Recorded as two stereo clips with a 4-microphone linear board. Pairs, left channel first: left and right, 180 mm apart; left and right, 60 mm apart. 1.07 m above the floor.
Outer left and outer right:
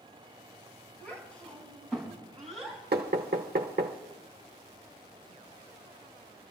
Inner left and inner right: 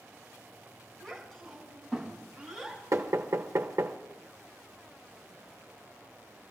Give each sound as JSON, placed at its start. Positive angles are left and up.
{"t": 1.0, "sound": "a child speaking", "side_deg": 10, "distance_m": 7.0}
{"t": 2.9, "sound": "knocking", "side_deg": -65, "distance_m": 0.9}